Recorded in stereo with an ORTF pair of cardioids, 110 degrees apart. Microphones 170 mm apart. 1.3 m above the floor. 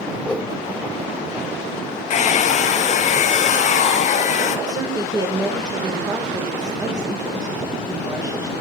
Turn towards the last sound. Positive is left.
turn(degrees=-25)